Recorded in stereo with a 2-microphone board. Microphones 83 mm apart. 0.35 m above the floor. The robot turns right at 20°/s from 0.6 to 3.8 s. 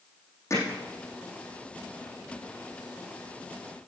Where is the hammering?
35° left (ahead or behind), 5.5 m; by 0.8 s 30° left (ahead or behind), 5.5 m.